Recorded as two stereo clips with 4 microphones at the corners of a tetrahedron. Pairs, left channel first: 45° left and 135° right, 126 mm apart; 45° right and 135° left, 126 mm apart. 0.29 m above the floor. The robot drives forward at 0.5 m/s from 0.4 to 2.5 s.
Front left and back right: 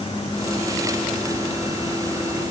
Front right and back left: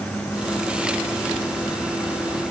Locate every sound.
Only background noise.